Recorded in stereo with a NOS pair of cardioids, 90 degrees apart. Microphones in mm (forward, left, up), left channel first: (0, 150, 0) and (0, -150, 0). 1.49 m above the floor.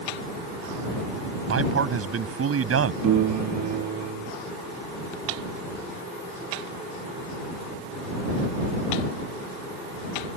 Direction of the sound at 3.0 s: 70° right.